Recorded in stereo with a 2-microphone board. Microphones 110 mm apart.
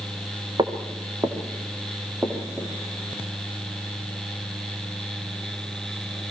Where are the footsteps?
40° right (ahead or behind), 2.5 m; by 2.7 s 15° right (ahead or behind), 4.5 m.